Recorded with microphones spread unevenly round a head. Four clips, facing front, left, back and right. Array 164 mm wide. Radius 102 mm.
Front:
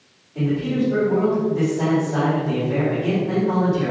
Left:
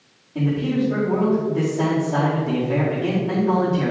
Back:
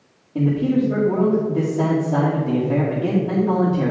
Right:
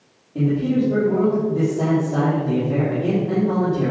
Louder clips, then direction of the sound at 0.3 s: Right 2 dB, back 3 dB; 160° right.